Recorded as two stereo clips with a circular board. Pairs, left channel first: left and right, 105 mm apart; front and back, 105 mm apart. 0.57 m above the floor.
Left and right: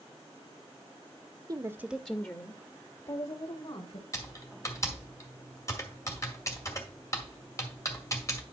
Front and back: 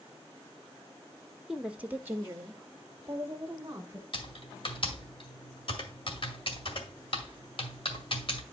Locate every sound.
1.5 s a woman speaking: 100° right, 0.7 m; by 4.0 s 115° left, 1.8 m
4.1 s typing on a keyboard: 30° left, 2 m